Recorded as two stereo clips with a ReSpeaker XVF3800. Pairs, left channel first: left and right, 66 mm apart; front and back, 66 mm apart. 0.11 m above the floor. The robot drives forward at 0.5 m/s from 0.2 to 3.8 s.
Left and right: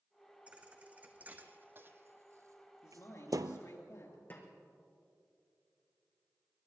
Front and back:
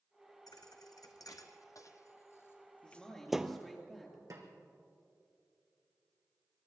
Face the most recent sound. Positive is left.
turn(degrees=150)